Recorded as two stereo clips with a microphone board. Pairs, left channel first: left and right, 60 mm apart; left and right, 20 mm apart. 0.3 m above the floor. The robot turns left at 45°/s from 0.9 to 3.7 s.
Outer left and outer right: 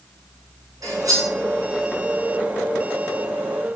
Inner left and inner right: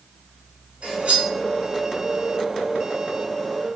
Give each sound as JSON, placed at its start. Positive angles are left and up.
{"t": 0.8, "sound": "cutlery clinking", "side_deg": -75, "distance_m": 1.5}